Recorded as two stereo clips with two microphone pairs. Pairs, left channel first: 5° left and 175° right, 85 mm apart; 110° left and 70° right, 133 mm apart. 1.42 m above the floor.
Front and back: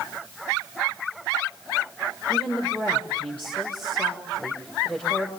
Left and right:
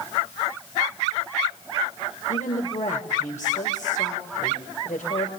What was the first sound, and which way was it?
A woman speaking, 80° left.